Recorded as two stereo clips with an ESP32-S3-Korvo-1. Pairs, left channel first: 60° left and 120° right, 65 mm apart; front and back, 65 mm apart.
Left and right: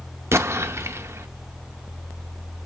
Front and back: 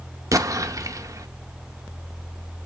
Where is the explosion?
165° right, 0.6 m.